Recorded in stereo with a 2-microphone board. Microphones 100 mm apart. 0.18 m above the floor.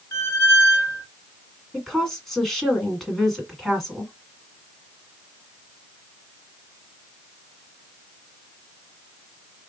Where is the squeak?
35° left (ahead or behind), 1.4 m.